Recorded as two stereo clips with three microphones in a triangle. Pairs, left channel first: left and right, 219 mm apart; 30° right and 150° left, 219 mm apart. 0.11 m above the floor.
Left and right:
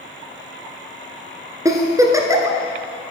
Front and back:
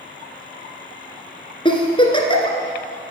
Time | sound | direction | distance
1.6 | a giggle | 40° right | 1.3 m